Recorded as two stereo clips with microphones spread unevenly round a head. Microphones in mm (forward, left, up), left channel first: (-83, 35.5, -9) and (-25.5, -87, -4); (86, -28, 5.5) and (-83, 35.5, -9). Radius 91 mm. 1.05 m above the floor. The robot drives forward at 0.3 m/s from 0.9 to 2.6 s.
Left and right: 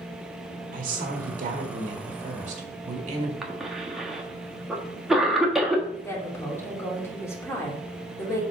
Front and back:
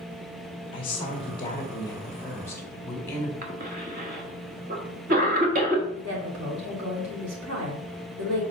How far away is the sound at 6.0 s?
About 2.5 m.